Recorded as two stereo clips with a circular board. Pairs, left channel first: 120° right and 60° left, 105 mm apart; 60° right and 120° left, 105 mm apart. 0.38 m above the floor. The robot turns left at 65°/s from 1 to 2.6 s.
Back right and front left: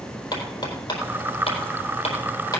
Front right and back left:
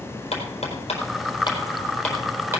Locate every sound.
0.3 s hammering: 75° right, 4 m; by 2.6 s straight behind, 4 m